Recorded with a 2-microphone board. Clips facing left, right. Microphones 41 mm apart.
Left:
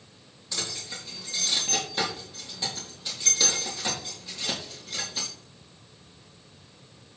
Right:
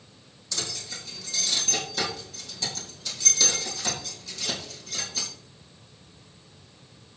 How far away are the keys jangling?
About 4.5 m.